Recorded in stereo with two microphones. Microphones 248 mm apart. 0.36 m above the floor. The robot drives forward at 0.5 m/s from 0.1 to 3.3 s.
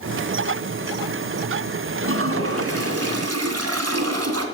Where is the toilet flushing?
55° right (ahead or behind), 1.6 m; by 4.5 s 75° right (ahead or behind), 1.4 m.